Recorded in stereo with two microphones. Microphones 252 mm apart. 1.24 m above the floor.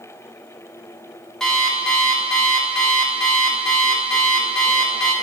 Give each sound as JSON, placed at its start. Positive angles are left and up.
{"t": 1.4, "sound": "an alarm clock", "side_deg": 0, "distance_m": 1.0}